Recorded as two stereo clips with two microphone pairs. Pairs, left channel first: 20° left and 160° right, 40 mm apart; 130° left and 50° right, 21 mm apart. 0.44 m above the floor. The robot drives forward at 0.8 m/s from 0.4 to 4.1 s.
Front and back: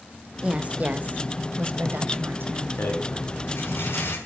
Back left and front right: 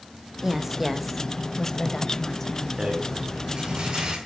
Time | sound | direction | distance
0.4 | a woman speaking | 110° right | 1.3 m
2.8 | a rattle | 5° left | 5.5 m